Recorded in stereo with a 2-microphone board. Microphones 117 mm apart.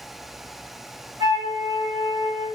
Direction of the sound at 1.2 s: 30° right (ahead or behind).